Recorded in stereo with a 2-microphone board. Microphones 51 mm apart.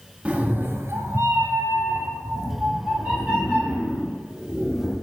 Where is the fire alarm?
No fire alarm in this recording.